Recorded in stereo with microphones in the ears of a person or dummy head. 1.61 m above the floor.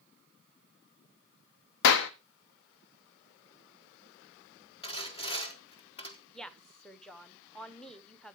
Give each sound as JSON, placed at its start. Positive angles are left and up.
{"t": 1.8, "sound": "a clap", "side_deg": 60, "distance_m": 0.7}
{"t": 4.8, "sound": "sawing", "side_deg": 25, "distance_m": 1.0}
{"t": 6.3, "sound": "a woman speaking", "side_deg": 0, "distance_m": 0.9}